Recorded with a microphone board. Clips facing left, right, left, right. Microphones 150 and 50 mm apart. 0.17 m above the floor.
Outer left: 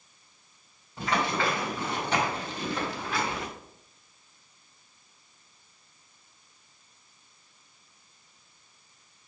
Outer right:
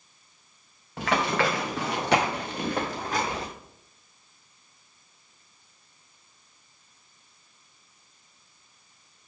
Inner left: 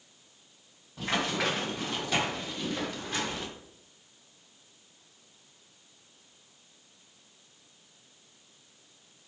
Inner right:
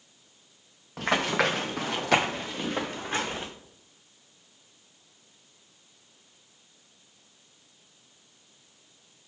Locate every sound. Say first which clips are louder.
1.0 s running footsteps: outer right 3 dB, inner right 5 dB; 75° right (ahead or behind), 2 m; by 3.5 s 35° right (ahead or behind), 2 m